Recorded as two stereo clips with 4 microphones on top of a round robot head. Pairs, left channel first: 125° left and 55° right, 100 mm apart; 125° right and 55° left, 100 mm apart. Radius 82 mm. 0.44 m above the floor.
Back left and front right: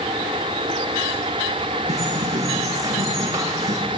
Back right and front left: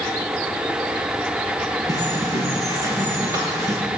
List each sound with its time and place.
1.9 s a bird: straight ahead, 8.5 m